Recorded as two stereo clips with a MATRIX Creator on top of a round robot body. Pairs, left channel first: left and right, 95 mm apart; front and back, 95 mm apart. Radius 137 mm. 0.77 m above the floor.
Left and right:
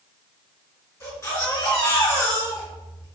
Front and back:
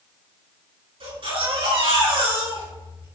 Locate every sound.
1.0 s a baby crying: 155° left, 6.5 m